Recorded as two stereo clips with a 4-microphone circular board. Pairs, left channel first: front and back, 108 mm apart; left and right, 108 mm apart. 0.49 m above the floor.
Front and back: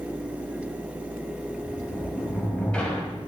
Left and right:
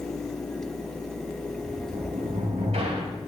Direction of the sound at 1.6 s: 80° right.